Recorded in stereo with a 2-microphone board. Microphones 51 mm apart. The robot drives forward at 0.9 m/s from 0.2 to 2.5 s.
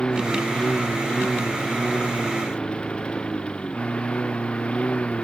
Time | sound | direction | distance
0.0 | a lawn mower | 15° left (ahead or behind) | ?